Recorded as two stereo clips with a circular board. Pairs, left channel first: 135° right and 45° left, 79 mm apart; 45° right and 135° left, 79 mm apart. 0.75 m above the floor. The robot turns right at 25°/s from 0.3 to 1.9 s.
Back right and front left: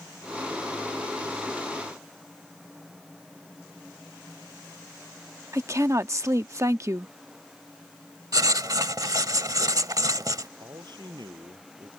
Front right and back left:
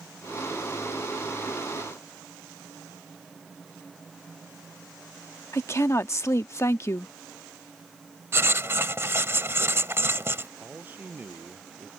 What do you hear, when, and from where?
5.5 s a woman speaking: straight ahead
8.3 s writing: 80° left
10.6 s a man speaking: 70° left